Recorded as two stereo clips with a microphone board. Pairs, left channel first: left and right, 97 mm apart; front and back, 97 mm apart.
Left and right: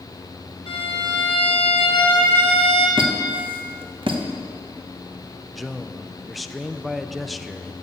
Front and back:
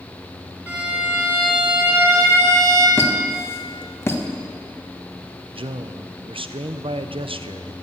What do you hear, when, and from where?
0.7 s a violin: 110° left, 2 m
3.0 s a squeak: 65° right, 1.1 m
5.5 s a man speaking: straight behind, 0.5 m